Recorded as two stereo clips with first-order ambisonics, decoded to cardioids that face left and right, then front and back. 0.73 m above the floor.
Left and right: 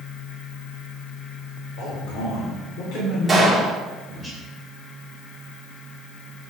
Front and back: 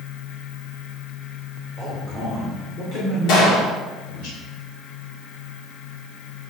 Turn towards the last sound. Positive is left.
turn(degrees=-10)